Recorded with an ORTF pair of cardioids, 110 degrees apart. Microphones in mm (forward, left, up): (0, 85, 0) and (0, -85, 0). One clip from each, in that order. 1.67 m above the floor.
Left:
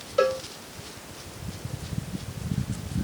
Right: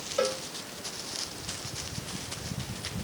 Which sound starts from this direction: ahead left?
A cowbell, at 0.2 s.